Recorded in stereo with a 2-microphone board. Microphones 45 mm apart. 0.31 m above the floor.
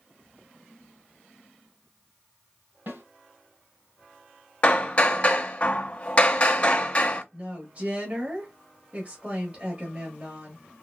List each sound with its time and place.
2.9 s a snare drum: 55° right (ahead or behind), 1.9 m
4.6 s hammering: 30° left (ahead or behind), 0.6 m
7.3 s a woman speaking: 35° right (ahead or behind), 1.2 m